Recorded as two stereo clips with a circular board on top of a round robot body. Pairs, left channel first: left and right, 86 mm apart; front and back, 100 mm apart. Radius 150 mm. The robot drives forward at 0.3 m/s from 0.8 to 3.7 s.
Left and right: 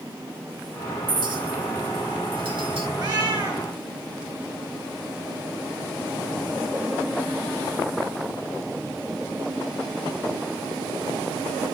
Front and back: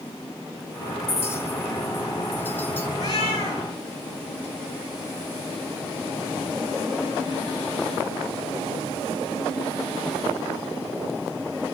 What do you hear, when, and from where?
1.1 s a clink: 65° right, 4 m; by 2.9 s 75° right, 4 m
3.0 s a cat meowing: 50° right, 8.5 m; by 3.6 s 55° right, 8.5 m